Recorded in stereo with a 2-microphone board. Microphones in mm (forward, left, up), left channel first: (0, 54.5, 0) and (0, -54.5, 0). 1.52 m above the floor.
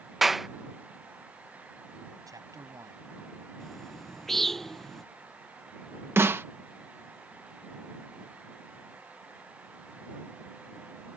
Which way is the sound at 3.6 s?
5° left (ahead or behind).